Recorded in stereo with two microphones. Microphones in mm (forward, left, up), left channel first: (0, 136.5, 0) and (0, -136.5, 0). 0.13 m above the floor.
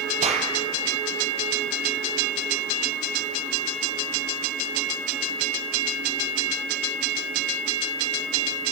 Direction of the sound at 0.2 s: 25° right (ahead or behind).